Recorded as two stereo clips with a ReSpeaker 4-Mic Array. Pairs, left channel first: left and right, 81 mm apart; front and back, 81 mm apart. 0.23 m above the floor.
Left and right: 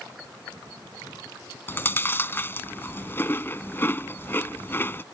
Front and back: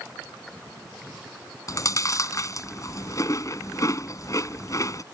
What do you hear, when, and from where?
1.7 s chewing: 35° left